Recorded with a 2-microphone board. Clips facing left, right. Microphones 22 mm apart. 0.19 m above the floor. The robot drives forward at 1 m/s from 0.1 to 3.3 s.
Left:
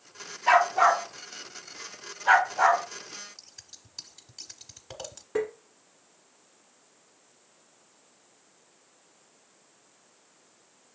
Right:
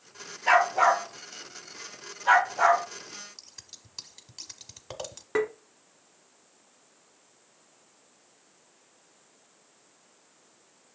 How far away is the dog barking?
About 1.4 m.